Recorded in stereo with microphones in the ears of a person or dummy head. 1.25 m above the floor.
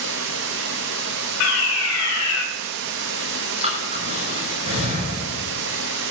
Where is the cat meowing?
No cat meowing in this recording.